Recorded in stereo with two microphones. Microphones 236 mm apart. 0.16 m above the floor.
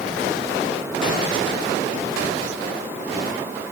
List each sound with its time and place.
Only background noise.